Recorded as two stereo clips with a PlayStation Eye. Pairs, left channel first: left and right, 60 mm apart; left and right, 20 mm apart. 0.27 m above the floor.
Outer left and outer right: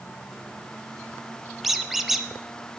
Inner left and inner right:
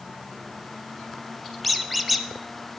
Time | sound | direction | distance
1.6 | a squeak | centre (ahead or behind) | 0.7 m